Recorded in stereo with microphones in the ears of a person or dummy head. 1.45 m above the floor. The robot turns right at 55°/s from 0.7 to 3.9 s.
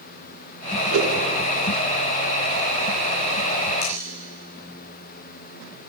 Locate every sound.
0.9 s a whoosh: 85° right, 3.5 m; by 1.2 s 80° right, 3.5 m
3.8 s cutlery clinking: 50° left (ahead or behind), 9 m; by 3.9 s 45° left (ahead or behind), 9 m